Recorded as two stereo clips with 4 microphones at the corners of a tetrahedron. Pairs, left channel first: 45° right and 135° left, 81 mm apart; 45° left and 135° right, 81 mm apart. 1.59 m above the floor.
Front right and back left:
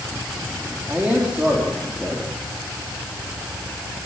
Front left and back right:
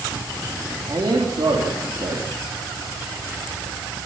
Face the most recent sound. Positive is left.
turn(degrees=-155)